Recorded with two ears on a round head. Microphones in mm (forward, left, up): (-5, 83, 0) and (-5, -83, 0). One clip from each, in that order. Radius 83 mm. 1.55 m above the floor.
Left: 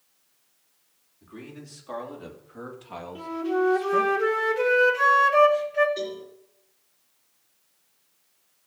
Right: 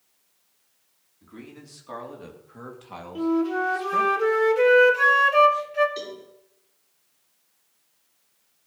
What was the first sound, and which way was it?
A man speaking, centre (ahead or behind).